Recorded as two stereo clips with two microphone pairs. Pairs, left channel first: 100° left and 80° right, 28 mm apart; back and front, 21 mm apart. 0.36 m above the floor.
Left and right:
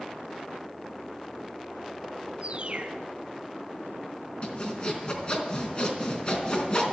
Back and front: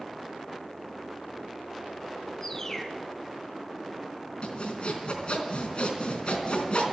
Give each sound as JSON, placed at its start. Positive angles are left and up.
{"t": 2.4, "sound": "a bird", "azimuth_deg": -115, "distance_m": 2.0}
{"t": 4.4, "sound": "sawing", "azimuth_deg": 150, "distance_m": 3.5}